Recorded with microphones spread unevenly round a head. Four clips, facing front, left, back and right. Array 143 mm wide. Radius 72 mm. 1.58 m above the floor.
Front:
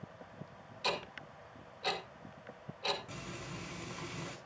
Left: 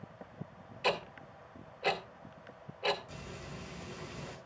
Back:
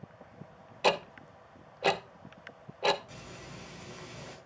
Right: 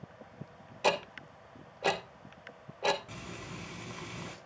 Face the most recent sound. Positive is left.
turn(degrees=-70)